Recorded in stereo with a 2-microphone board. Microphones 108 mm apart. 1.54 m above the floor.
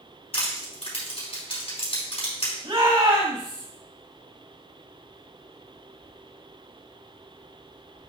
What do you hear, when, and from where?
0.3 s crushing: 70° left (ahead or behind), 4.5 m
2.6 s a shout: 80° right, 4.5 m